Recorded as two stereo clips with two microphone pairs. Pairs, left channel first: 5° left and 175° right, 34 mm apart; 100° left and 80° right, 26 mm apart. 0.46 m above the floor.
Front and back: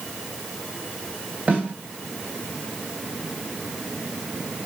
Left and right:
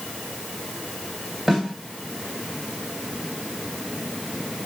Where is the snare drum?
135° right, 2.5 m.